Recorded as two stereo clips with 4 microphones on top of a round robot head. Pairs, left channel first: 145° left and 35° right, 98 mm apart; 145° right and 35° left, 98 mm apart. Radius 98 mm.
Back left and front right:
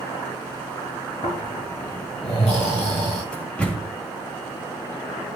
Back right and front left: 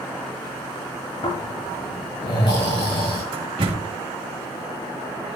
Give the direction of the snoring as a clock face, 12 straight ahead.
6 o'clock.